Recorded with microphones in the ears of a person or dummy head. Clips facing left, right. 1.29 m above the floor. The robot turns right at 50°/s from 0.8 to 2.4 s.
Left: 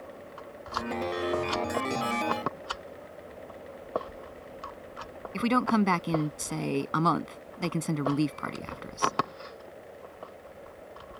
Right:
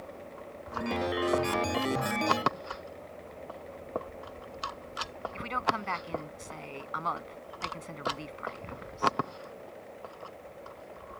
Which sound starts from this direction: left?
A woman speaking, at 5.3 s.